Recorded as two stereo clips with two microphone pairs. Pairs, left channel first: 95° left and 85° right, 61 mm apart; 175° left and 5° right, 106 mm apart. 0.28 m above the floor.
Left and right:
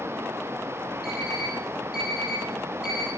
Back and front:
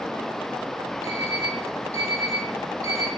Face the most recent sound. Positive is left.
turn(degrees=-165)